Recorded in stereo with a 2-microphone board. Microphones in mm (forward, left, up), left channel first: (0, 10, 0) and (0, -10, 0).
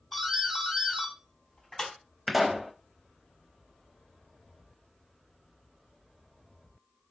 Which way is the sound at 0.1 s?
20° left (ahead or behind).